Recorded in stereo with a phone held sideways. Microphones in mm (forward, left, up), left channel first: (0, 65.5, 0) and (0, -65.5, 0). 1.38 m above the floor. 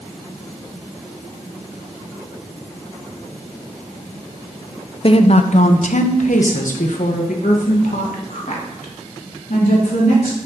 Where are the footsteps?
No footsteps in this recording.